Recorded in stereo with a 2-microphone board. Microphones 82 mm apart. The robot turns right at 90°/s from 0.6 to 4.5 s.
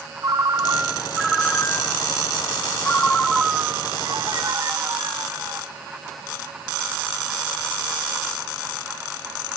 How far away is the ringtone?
About 1.4 m.